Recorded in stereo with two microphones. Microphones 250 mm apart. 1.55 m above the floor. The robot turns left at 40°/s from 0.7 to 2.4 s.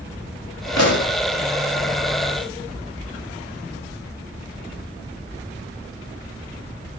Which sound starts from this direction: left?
A pop, at 0.8 s.